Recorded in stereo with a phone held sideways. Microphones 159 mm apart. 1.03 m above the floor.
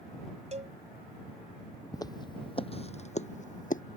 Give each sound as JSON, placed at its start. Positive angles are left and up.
{"t": 0.5, "sound": "a cowbell", "side_deg": -45}
{"t": 1.9, "sound": "footsteps", "side_deg": 25}